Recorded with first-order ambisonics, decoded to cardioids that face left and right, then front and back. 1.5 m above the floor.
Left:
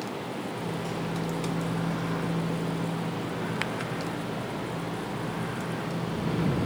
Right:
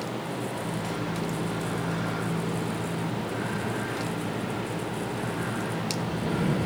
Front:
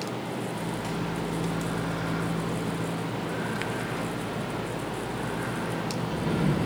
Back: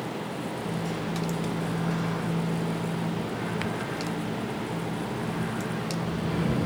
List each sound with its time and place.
0.5 s a microwave: 30° right, 1.0 m